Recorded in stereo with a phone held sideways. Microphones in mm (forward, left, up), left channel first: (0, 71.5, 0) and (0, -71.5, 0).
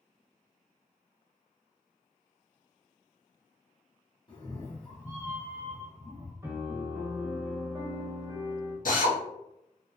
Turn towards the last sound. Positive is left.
turn(degrees=70)  # may be behind; listen again after turning